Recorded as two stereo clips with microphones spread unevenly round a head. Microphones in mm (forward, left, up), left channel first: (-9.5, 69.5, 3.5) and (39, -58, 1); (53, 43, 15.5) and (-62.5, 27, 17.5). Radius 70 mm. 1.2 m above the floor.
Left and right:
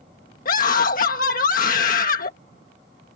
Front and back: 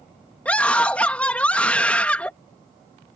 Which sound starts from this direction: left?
A scream, at 0.5 s.